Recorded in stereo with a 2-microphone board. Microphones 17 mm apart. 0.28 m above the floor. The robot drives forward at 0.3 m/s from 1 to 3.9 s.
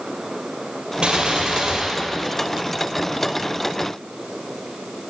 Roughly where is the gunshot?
Right.